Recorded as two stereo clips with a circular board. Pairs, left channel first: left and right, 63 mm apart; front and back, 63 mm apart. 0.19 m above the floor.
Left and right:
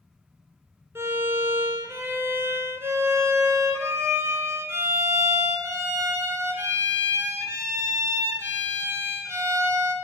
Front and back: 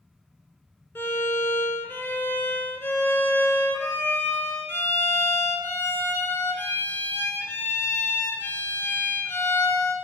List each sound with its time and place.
0.9 s a violin: 45° right, 0.5 m